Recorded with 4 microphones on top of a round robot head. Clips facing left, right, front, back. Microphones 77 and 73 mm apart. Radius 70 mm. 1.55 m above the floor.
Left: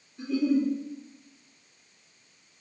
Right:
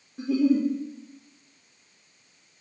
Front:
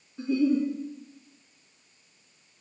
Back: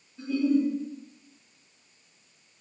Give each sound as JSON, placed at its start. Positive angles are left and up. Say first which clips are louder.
{"t": 0.2, "sound": "a giggle", "louder": "right 3 dB, even", "azimuth_deg": -70, "distance_m": 1.0}